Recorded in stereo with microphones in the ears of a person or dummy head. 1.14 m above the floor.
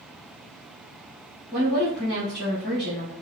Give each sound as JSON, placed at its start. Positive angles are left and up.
{"t": 1.5, "sound": "a woman speaking", "side_deg": 20, "distance_m": 1.0}